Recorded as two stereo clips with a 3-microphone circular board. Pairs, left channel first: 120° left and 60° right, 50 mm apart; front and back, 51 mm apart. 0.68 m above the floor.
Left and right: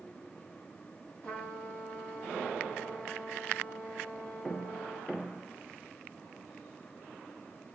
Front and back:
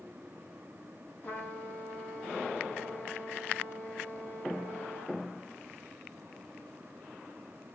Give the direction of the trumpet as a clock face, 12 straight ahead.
10 o'clock.